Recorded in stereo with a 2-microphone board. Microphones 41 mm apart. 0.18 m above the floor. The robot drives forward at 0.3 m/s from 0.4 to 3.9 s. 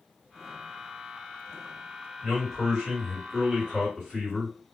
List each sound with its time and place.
2.2 s a man speaking: 5° right (ahead or behind), 2 m